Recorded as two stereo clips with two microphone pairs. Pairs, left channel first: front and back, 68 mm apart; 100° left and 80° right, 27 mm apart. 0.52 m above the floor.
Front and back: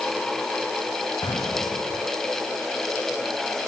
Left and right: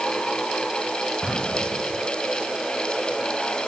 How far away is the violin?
No violin in this recording.